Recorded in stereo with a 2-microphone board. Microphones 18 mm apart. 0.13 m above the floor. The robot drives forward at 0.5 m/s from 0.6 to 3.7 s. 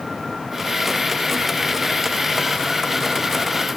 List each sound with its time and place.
Only background noise.